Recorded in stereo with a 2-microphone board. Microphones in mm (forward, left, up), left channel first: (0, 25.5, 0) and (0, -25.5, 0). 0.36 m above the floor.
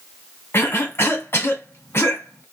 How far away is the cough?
About 1.8 m.